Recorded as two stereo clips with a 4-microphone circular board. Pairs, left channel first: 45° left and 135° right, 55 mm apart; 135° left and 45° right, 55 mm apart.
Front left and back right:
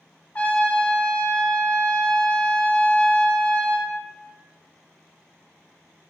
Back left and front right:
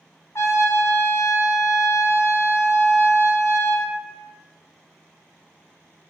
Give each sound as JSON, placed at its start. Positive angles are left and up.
{"t": 0.3, "sound": "a trumpet", "azimuth_deg": 105, "distance_m": 0.5}